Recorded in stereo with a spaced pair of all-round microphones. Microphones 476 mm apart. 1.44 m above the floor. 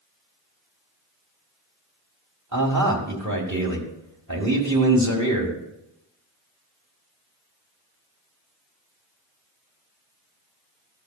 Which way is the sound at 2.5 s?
35° right (ahead or behind).